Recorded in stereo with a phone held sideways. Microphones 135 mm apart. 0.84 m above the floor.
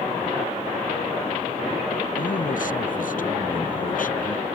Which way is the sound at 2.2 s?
70° left (ahead or behind).